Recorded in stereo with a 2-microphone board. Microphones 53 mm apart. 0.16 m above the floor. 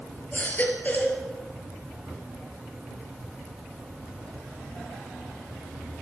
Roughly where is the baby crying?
Left.